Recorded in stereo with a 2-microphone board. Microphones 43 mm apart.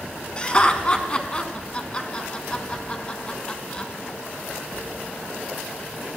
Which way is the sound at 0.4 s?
25° left (ahead or behind).